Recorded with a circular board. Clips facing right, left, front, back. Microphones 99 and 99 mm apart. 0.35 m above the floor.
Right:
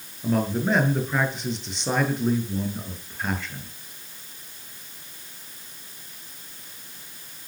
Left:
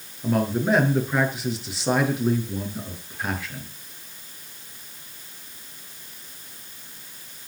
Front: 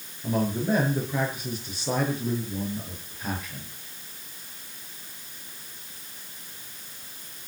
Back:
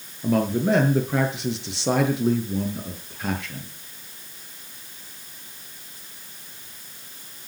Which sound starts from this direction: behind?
A man speaking, at 0.2 s.